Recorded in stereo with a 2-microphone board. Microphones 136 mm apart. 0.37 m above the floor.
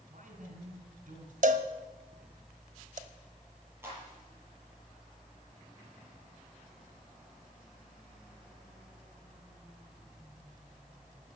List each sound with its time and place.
0.1 s a man speaking: 60° right (ahead or behind), 5 m
1.4 s a cowbell: 60° right (ahead or behind), 1.1 m
3.8 s a clap: 15° right (ahead or behind), 7 m